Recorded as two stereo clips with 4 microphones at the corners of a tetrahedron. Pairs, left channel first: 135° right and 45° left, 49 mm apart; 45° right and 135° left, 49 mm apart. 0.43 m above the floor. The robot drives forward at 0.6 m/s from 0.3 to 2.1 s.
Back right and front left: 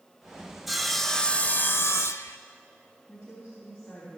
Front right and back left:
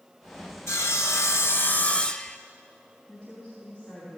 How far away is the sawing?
About 0.8 m.